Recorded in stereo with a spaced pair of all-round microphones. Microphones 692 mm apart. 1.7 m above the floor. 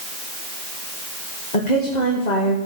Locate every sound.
1.5 s a woman speaking: 85° left, 2.5 m